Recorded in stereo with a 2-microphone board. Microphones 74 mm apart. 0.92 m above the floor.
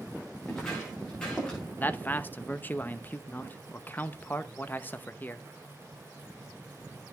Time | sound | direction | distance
0.4 | footsteps | 15° left (ahead or behind) | 7.5 m
1.8 | a man speaking | 25° left (ahead or behind) | 0.8 m